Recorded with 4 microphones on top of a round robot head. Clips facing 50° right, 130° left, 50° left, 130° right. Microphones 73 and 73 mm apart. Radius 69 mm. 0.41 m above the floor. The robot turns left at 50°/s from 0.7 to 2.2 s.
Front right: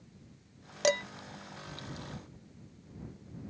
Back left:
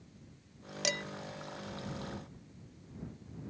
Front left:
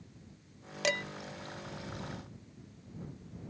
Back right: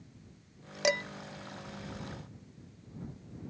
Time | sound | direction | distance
0.8 | dishes clattering | 60° right | ?